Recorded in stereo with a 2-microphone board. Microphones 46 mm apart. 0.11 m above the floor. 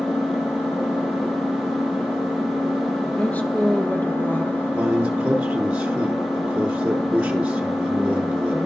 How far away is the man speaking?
About 1.1 m.